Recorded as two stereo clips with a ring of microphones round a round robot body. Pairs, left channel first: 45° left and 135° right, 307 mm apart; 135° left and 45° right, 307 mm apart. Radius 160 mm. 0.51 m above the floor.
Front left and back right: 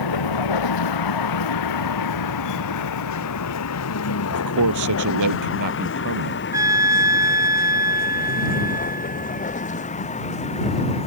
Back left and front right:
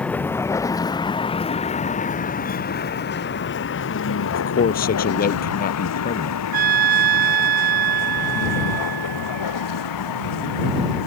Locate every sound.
0.0 s a vehicle: 50° left; by 11.1 s 115° left
4.3 s a man speaking: 165° right
6.5 s a trumpet: 55° right